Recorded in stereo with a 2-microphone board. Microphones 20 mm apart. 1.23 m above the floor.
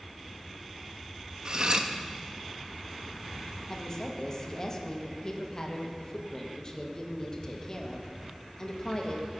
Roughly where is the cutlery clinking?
Right.